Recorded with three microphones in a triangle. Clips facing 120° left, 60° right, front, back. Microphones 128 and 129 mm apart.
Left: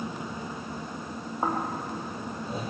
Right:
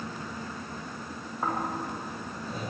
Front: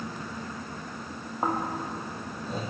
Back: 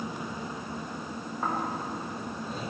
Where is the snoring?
55° left, 4 m.